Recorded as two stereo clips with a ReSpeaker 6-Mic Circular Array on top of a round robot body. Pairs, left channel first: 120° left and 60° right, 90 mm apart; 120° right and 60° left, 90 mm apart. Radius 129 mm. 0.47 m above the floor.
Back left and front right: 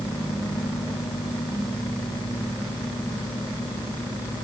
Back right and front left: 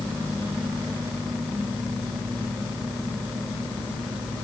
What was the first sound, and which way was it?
Only background noise.